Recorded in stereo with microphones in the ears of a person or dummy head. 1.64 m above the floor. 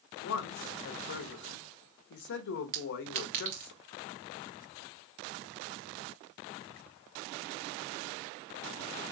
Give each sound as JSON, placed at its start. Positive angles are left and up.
{"t": 0.2, "sound": "a man speaking", "side_deg": 60, "distance_m": 0.8}
{"t": 2.7, "sound": "a clink", "side_deg": -45, "distance_m": 0.9}